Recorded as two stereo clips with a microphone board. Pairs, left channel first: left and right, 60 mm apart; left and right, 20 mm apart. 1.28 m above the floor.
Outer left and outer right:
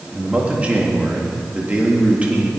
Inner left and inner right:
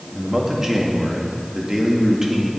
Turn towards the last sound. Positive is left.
turn(degrees=-25)  # may be behind; listen again after turning